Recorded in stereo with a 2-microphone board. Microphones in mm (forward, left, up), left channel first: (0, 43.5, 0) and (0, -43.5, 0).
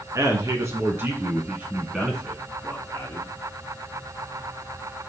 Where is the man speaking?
40° right (ahead or behind), 1.4 m; by 3.3 s 20° left (ahead or behind), 1.5 m.